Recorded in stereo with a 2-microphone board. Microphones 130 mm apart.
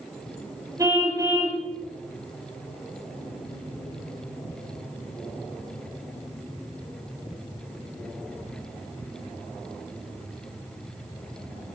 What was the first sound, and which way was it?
A car horn, 25° right (ahead or behind).